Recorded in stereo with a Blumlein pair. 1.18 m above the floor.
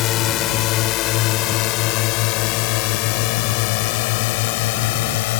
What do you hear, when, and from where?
0.0 s a drone: 35° left; by 5.4 s 50° left